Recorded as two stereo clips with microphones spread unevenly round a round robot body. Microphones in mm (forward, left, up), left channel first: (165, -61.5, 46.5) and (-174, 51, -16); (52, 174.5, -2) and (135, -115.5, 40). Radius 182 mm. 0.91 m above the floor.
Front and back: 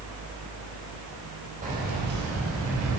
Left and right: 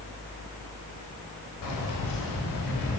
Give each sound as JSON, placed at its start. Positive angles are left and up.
{"t": 1.6, "sound": "keys jangling", "azimuth_deg": 90, "distance_m": 3.5}